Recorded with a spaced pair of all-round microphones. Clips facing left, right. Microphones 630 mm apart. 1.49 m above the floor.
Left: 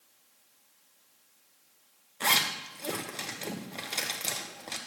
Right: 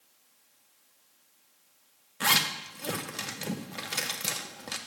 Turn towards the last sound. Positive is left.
turn(degrees=-40)  # may be behind; listen again after turning